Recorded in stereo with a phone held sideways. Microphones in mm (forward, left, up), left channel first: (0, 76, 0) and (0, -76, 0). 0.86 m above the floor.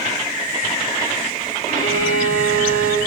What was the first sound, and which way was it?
A violin, 60° right (ahead or behind).